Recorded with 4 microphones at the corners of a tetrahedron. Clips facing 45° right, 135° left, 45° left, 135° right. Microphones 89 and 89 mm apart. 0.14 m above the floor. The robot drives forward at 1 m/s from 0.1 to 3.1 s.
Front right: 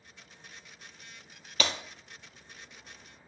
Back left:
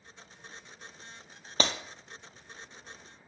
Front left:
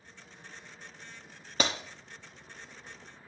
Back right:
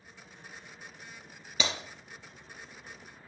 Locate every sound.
1.6 s breaking glass: 80° left, 1.3 m; by 1.7 s 85° left, 1.3 m